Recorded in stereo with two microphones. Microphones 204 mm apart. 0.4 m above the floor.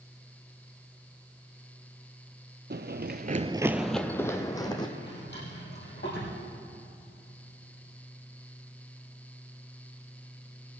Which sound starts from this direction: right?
Running footsteps, at 2.7 s.